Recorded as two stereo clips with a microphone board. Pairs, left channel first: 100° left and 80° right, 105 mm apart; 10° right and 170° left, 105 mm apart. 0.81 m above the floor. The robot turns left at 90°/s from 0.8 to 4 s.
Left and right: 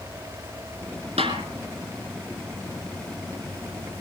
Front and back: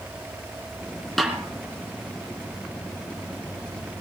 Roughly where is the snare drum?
Right.